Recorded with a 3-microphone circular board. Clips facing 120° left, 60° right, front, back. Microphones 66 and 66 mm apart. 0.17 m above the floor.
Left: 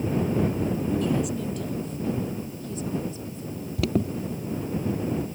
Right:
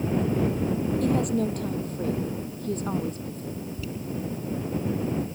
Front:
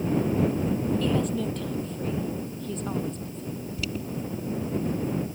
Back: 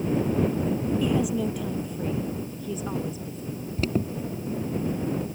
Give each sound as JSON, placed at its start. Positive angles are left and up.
{"t": 1.0, "sound": "a woman speaking", "azimuth_deg": -100}
{"t": 3.8, "sound": "an alarm", "azimuth_deg": 135}